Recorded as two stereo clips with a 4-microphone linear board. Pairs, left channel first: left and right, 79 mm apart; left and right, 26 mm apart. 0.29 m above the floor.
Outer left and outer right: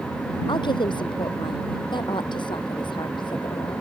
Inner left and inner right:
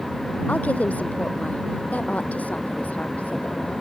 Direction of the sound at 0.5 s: 85° left.